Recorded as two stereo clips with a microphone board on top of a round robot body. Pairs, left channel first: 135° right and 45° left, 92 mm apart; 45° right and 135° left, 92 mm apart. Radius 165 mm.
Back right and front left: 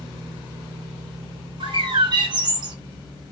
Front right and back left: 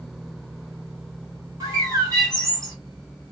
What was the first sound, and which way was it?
A bird, 80° left.